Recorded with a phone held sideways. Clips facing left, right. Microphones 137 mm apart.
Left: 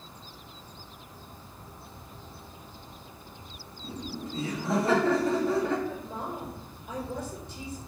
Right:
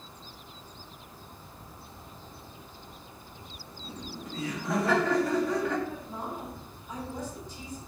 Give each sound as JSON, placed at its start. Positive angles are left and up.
{"t": 3.8, "sound": "laughter", "side_deg": 30, "distance_m": 3.0}
{"t": 5.9, "sound": "a woman speaking", "side_deg": 80, "distance_m": 4.5}